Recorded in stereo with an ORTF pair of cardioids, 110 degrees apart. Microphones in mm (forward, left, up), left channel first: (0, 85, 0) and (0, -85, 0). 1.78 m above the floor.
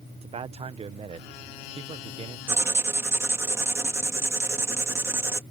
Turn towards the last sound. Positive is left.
turn(degrees=-15)